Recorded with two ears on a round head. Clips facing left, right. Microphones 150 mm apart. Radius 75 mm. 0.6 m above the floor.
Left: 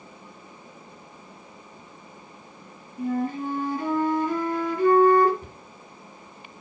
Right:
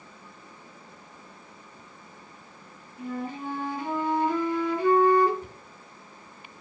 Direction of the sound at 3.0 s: 40° left (ahead or behind).